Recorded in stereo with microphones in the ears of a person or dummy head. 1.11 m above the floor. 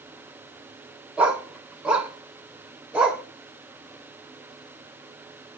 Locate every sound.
1.2 s a dog barking: 10° right (ahead or behind), 0.9 m